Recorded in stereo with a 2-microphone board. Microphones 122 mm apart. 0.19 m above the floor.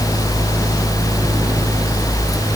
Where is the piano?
I don't hear a piano.